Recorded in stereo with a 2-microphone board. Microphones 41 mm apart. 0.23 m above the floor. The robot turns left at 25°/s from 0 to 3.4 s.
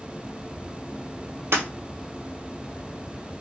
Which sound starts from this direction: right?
Breaking glass, at 1.5 s.